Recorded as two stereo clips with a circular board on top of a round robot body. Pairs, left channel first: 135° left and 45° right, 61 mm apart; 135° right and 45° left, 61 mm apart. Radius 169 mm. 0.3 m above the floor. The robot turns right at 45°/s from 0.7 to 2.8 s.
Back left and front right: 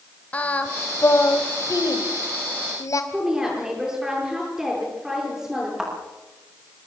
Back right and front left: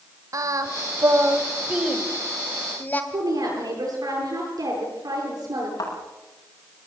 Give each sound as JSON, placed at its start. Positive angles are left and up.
{"t": 0.3, "sound": "singing", "azimuth_deg": 70, "distance_m": 2.5}
{"t": 3.1, "sound": "a woman speaking", "azimuth_deg": 35, "distance_m": 9.5}
{"t": 5.8, "sound": "a thud", "azimuth_deg": -130, "distance_m": 9.0}